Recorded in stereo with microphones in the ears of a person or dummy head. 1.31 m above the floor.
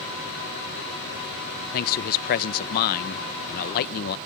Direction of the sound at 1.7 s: 50° left (ahead or behind).